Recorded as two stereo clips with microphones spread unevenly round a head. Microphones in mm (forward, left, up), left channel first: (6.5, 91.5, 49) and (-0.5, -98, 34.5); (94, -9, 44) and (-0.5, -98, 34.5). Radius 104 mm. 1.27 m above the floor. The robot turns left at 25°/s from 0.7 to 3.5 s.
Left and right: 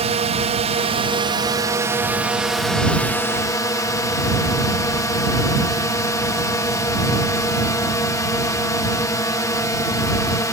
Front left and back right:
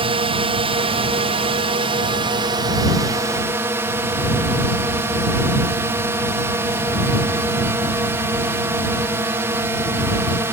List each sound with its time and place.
0.0 s a drone: 130° right; by 10.5 s 160° left